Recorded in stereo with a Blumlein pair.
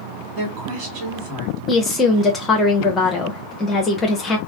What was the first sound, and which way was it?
A woman speaking, 30° right.